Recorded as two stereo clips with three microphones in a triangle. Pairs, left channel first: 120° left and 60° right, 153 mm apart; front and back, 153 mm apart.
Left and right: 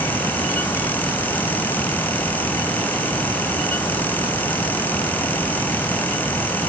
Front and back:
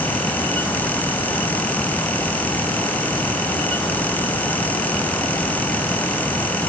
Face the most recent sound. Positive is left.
No sound to turn to.